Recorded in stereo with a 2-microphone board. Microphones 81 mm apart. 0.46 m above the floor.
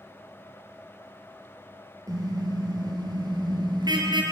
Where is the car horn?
45° right (ahead or behind), 6 m; by 4.2 s 60° right (ahead or behind), 5 m.